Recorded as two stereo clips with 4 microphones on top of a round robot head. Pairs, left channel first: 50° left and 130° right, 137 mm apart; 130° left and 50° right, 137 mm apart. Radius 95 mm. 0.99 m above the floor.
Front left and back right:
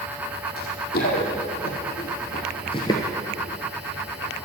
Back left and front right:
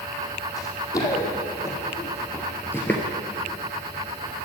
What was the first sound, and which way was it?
Running footsteps, 70° left.